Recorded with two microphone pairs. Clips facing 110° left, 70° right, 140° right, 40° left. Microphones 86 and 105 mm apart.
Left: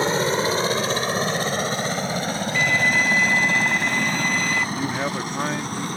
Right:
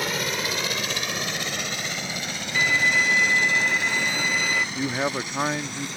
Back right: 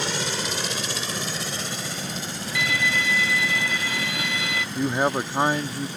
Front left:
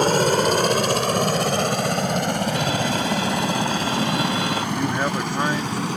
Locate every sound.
0.0 s a helicopter: 60° left
2.5 s a violin: 10° left
4.8 s a man speaking: 140° right